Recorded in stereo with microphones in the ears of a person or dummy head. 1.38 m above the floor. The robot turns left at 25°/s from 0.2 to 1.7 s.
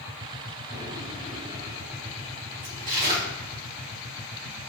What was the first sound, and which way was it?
A drawer, 40° right (ahead or behind).